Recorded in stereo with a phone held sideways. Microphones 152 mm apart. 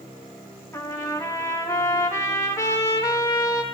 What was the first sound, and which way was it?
A trumpet, 20° left (ahead or behind).